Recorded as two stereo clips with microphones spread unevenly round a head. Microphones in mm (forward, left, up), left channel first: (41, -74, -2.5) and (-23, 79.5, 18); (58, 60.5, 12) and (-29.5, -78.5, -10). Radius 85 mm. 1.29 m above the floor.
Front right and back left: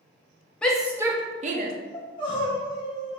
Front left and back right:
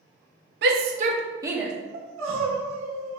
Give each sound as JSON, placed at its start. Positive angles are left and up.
{"t": 0.6, "sound": "a shout", "azimuth_deg": -150, "distance_m": 0.6}
{"t": 1.9, "sound": "crying", "azimuth_deg": -130, "distance_m": 0.9}